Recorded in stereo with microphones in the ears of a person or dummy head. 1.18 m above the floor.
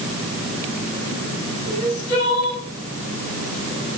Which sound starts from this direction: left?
Crying, at 1.7 s.